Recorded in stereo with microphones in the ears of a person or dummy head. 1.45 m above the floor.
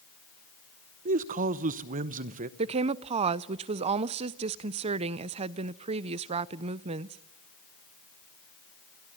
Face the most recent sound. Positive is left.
turn(degrees=-25)  # may be behind; listen again after turning